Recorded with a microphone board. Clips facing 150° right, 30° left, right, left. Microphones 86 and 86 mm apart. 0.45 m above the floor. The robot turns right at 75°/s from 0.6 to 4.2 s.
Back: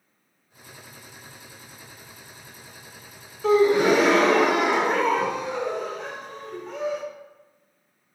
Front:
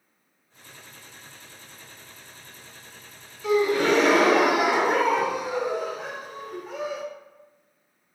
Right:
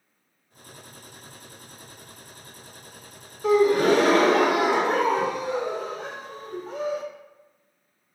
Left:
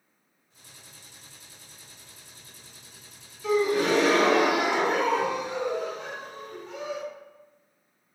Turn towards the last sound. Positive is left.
turn(degrees=-55)